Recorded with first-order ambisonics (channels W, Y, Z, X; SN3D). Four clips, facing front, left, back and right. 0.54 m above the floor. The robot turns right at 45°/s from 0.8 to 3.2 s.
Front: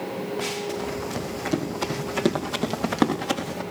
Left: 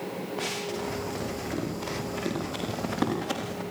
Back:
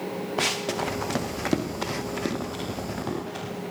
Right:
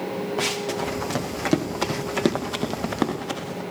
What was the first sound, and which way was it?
Running footsteps, 155° right.